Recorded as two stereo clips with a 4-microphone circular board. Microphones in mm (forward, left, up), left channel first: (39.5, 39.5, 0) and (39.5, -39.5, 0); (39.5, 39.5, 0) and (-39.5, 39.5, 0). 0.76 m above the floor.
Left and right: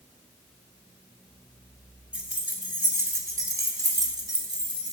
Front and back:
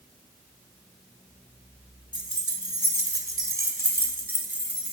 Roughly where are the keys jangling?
Behind.